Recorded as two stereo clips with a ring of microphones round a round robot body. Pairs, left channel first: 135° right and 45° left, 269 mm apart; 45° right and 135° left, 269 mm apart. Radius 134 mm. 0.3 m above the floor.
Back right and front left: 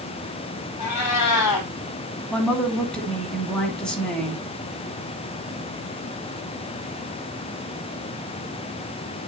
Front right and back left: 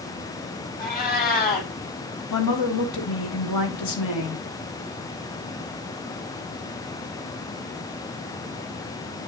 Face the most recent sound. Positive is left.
turn(degrees=-50)